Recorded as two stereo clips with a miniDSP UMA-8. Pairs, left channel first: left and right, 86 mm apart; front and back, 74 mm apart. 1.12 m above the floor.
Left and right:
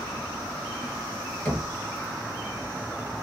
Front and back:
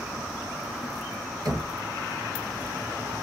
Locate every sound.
1.4 s knocking: 155° left, 1.2 m